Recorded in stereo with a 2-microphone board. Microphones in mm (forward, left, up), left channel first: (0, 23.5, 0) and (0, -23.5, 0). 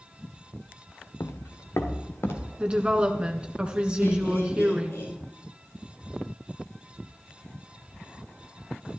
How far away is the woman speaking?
About 1.1 m.